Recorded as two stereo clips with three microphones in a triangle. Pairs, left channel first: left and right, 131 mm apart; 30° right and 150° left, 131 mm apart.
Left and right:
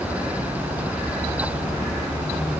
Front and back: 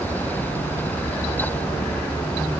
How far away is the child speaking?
I don't hear a child speaking.